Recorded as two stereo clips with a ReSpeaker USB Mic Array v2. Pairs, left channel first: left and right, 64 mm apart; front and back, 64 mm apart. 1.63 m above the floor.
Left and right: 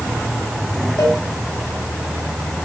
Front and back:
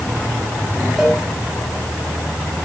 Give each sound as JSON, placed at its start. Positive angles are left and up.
{"t": 1.0, "sound": "a cowbell", "azimuth_deg": 95, "distance_m": 6.0}